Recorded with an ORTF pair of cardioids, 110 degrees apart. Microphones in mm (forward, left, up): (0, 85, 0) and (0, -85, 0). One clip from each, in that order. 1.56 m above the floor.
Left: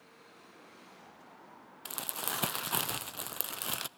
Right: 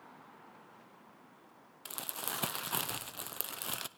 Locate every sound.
1.9 s crumpling: 10° left, 0.5 m